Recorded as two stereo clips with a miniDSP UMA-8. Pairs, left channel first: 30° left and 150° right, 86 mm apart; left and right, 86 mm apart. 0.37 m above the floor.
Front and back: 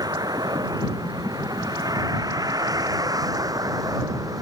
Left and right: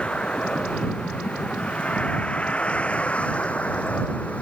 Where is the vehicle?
170° left; by 4.4 s 165° left.